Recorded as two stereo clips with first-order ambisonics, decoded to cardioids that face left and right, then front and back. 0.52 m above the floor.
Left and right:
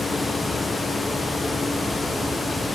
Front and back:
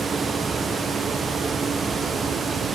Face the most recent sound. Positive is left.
No sound to turn to.